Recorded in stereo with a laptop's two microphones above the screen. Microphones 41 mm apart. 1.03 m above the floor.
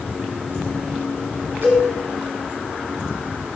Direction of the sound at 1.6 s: 65° right (ahead or behind).